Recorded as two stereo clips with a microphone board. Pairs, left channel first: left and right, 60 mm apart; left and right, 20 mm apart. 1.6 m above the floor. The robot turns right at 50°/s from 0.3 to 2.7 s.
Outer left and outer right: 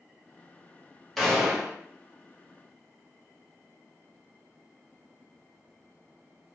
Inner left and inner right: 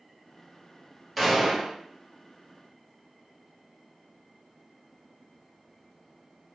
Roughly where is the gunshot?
Centre.